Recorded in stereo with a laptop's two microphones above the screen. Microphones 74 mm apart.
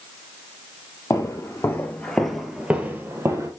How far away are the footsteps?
About 1.5 m.